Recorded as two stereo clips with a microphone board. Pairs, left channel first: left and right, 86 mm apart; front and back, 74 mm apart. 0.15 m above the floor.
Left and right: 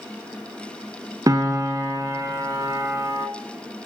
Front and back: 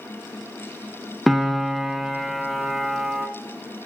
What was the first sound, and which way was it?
A piano, 90° right.